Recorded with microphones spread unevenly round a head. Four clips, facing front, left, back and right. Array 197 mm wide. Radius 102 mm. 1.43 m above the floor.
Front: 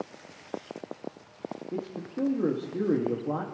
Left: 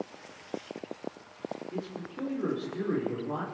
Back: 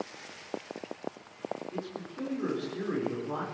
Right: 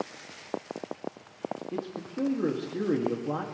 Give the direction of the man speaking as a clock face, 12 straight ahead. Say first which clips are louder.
Right 3 dB, front 4 dB; 1 o'clock.